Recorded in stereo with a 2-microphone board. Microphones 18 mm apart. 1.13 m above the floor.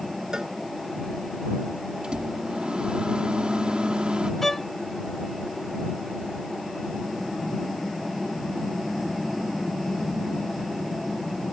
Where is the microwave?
75° right (ahead or behind).